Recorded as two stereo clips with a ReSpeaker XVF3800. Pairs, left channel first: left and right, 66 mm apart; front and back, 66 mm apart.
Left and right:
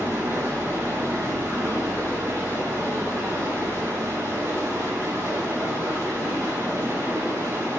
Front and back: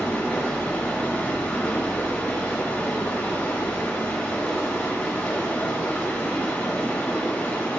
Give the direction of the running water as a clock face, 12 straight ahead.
2 o'clock.